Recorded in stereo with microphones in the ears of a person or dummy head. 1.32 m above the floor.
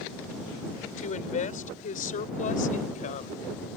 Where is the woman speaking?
40° left (ahead or behind); by 3.4 s 45° left (ahead or behind).